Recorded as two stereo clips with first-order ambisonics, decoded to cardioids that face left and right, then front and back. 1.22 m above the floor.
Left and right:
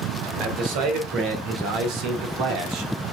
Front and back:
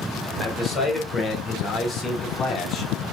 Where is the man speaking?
75° right, 4 m; by 3.1 s 55° right, 2.5 m.